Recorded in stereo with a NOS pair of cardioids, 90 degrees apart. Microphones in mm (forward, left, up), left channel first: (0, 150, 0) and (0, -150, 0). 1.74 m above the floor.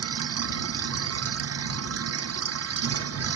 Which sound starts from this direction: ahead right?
A machine running, at 0.0 s.